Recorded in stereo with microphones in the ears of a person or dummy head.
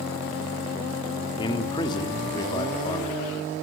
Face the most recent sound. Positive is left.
turn(degrees=20)  # may be behind; listen again after turning